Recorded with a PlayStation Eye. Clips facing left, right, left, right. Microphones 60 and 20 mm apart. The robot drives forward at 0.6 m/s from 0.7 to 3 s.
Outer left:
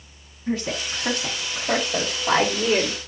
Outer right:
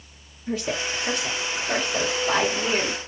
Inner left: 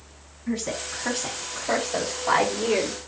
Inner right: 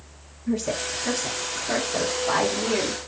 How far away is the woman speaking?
About 1.6 m.